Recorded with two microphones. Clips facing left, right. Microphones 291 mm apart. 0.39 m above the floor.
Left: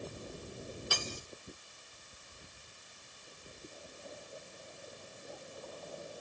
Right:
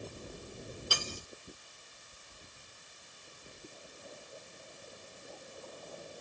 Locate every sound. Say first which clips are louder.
0.9 s cutlery clinking: even; 40° right (ahead or behind), 1.5 m